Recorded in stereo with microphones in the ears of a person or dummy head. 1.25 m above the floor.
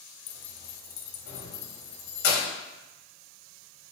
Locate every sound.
0.3 s keys jangling: 50° left (ahead or behind), 0.6 m